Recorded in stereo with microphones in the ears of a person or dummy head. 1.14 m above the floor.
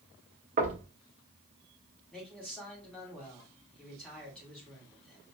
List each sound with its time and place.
0.6 s knocking: 45° right (ahead or behind), 0.9 m
2.1 s a man speaking: 5° left (ahead or behind), 1.8 m